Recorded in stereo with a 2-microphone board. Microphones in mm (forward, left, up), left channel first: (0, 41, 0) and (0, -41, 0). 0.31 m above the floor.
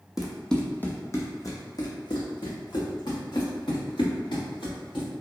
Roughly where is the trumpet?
No trumpet in this recording.